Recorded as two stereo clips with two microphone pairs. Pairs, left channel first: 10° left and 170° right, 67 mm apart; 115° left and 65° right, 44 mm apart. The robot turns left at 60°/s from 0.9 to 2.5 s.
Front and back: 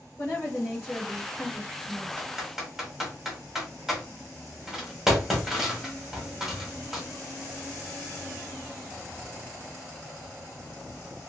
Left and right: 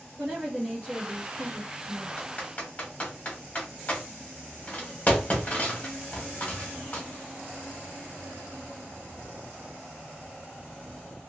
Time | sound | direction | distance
0.2 | a woman speaking | 30° right | 1.4 m
2.2 | typing on a keyboard | 125° left | 1.2 m